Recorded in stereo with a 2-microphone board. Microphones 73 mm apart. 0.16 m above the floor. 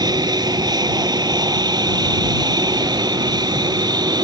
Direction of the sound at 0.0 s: 70° right (ahead or behind).